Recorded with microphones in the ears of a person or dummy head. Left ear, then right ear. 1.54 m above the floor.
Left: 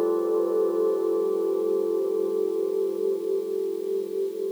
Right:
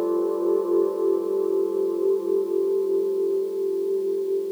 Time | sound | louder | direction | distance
0.0 | a machine running | even | 30° left (ahead or behind) | 2.5 m